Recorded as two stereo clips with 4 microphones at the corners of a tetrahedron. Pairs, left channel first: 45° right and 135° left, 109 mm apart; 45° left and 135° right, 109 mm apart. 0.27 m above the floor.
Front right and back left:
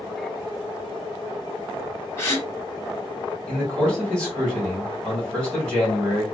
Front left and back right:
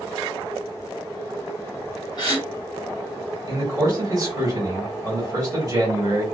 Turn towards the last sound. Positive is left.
turn(degrees=-120)